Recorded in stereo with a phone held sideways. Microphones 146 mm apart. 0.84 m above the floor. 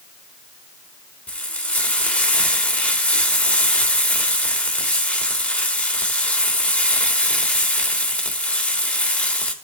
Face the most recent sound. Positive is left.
turn(degrees=10)  # may be behind; listen again after turning